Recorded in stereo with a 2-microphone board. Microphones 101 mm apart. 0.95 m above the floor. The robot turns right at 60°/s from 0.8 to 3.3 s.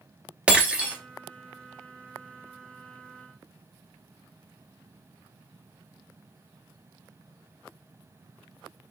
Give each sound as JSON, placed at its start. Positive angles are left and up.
{"t": 0.5, "sound": "breaking glass", "side_deg": -10, "distance_m": 1.0}